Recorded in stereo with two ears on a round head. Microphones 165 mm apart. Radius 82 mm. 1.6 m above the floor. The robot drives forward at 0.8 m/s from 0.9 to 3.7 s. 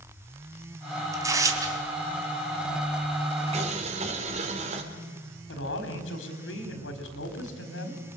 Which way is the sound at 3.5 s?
40° right (ahead or behind).